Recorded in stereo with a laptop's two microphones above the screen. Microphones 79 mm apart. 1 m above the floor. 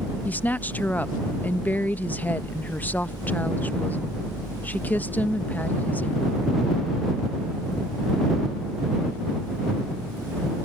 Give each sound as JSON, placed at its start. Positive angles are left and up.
{"t": 0.2, "sound": "a woman speaking", "side_deg": 25}